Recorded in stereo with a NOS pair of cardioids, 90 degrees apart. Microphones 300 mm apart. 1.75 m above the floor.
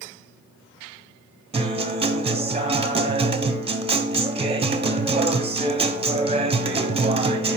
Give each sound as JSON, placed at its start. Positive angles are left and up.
{"t": 1.5, "sound": "a guitar", "azimuth_deg": -20, "distance_m": 1.4}